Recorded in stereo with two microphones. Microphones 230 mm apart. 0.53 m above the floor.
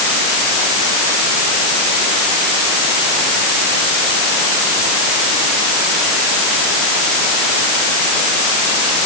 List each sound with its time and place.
Only background noise.